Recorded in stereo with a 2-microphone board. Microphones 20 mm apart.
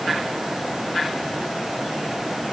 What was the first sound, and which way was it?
Only background noise.